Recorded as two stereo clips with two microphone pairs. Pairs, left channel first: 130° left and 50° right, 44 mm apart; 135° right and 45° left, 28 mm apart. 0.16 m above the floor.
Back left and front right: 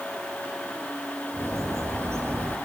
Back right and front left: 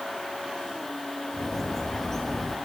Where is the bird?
60° right, 4 m.